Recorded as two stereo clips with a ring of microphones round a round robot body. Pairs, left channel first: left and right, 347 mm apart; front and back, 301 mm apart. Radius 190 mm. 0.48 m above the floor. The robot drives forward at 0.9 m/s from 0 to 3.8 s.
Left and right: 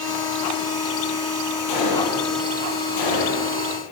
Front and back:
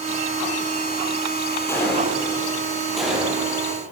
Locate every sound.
1.7 s a gunshot: 80° left, 7.5 m; by 3.5 s 95° left, 7.5 m